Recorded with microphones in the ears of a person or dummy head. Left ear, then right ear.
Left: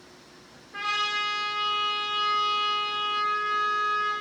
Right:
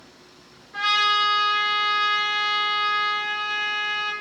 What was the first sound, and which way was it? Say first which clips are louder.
A trumpet: right 7 dB; 20° right (ahead or behind).